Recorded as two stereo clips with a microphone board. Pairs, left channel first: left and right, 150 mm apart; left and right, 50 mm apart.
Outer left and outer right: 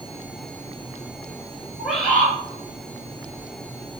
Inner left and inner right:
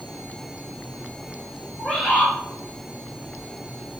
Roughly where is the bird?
Centre.